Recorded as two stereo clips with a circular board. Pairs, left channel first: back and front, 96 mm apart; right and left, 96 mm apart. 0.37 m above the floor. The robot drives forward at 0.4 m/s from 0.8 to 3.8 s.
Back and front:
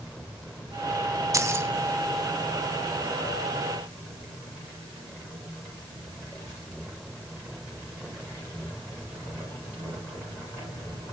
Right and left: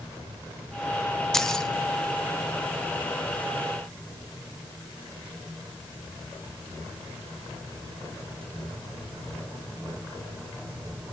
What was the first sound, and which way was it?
Keys jangling, 10° right.